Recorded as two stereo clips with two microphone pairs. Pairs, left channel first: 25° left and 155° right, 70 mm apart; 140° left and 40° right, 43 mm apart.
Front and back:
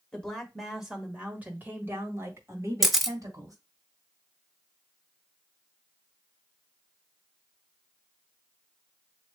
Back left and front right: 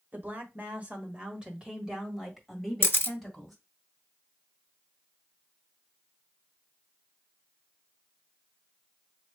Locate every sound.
0.1 s a woman speaking: 45° right, 1.4 m; by 3.5 s 135° right, 2 m
2.8 s a camera shutter: 110° left, 0.7 m